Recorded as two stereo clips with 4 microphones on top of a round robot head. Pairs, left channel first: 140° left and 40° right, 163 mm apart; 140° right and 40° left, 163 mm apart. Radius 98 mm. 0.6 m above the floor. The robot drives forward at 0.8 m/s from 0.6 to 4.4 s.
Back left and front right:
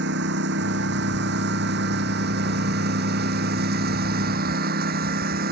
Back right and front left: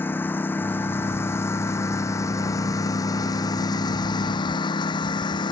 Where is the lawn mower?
60° right; by 5.5 s 75° right.